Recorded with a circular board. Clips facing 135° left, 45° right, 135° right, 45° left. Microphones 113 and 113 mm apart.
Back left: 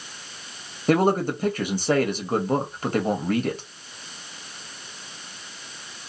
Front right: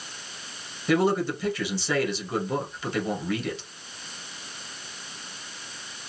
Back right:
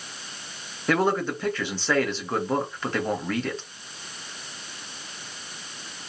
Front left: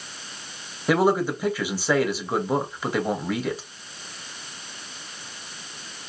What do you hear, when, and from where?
0.9 s a man speaking: 125° left, 0.8 m